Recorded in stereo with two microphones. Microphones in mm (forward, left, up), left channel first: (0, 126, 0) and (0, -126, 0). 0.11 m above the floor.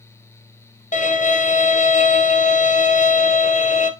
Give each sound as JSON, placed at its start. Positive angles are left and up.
{"t": 0.9, "sound": "a violin", "side_deg": 30, "distance_m": 1.1}